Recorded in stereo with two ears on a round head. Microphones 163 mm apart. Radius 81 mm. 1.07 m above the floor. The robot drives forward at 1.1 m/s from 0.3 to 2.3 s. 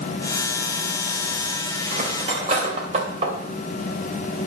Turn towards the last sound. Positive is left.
turn(degrees=-35)  # may be behind; listen again after turning